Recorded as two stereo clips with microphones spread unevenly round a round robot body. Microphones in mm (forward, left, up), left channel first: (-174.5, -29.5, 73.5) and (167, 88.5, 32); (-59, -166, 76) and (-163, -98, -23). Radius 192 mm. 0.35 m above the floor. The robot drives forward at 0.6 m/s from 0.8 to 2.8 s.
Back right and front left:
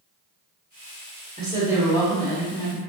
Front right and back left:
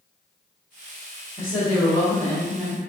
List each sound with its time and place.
1.4 s a woman speaking: 60° left, 1.2 m; by 2.8 s 135° left, 1.3 m